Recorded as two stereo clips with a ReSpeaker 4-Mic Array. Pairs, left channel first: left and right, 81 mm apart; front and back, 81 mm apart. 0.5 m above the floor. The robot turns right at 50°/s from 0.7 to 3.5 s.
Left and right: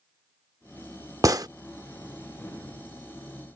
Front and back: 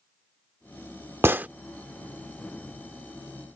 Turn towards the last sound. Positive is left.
turn(degrees=-10)